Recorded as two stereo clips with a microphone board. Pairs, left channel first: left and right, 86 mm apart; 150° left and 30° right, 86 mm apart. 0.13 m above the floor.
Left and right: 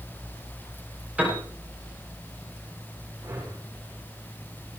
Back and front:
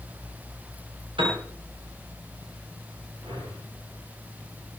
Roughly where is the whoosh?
Ahead right.